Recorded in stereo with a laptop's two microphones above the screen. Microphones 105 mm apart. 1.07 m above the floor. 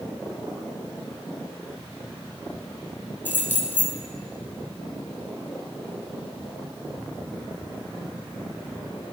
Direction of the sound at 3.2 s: 20° left (ahead or behind).